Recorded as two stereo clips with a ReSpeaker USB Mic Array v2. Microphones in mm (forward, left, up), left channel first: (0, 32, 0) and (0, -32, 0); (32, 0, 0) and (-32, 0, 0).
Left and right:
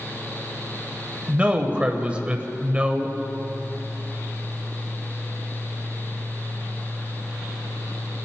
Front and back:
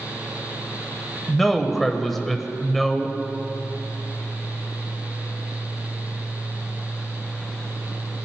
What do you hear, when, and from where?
1.3 s a man speaking: 85° right, 0.9 m